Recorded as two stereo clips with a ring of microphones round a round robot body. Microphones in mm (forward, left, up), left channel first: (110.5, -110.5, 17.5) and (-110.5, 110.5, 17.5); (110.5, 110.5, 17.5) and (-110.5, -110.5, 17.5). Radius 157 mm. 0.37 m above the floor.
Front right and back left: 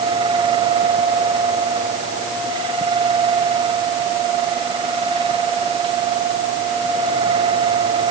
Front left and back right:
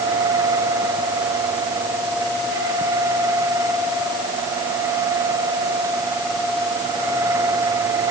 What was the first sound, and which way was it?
Only background noise.